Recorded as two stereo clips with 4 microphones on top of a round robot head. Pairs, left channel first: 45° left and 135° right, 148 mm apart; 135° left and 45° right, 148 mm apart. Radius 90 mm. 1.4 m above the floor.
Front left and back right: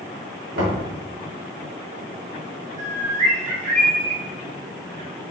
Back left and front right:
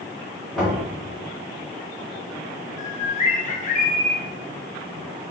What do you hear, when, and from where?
0.6 s knocking: 135° right, 2.0 m
2.8 s a bird: straight behind, 0.9 m